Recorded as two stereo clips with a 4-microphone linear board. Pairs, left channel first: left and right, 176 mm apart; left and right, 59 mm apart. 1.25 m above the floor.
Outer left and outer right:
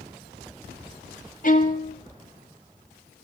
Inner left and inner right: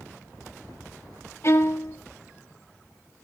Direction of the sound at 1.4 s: 50° left (ahead or behind).